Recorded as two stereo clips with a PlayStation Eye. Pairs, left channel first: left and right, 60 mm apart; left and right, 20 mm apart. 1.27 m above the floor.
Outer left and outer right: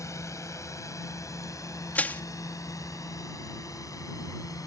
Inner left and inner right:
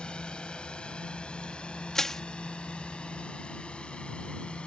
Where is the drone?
55° left (ahead or behind); by 4.7 s 70° left (ahead or behind).